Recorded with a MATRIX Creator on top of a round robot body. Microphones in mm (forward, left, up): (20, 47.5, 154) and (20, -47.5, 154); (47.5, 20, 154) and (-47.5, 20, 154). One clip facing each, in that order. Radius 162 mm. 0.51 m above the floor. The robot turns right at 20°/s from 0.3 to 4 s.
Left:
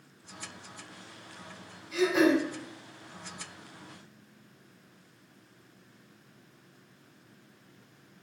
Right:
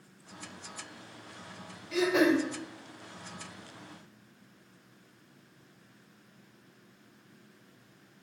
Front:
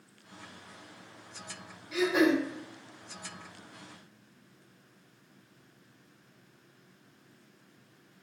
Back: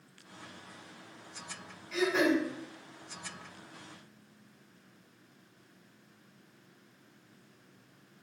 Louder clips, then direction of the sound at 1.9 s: Left 1 dB, front 2 dB; 80° right.